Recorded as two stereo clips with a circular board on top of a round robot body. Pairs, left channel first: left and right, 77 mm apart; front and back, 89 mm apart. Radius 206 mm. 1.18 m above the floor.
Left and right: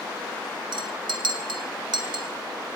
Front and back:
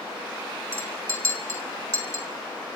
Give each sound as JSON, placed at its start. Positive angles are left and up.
{"t": 0.7, "sound": "a clink", "azimuth_deg": -65, "distance_m": 1.6}